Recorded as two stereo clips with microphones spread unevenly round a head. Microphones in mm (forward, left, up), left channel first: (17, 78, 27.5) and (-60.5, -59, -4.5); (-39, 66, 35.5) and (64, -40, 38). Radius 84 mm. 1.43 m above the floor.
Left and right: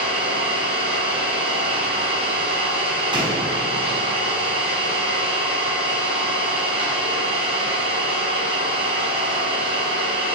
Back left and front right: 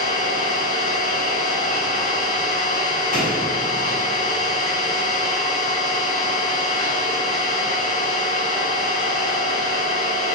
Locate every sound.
0.0 s an engine running: 175° right, 9.5 m
3.1 s a door slam: 175° left, 8.5 m